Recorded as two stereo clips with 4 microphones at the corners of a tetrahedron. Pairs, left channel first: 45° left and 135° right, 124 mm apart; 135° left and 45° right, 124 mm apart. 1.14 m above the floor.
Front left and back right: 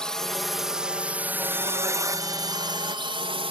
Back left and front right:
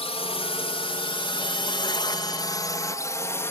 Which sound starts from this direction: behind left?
A drone, at 0.0 s.